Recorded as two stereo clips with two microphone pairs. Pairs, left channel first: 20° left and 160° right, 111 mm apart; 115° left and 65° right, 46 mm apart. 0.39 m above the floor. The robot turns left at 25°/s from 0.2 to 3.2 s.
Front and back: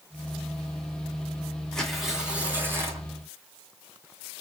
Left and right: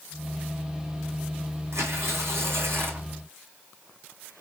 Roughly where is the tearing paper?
Ahead right.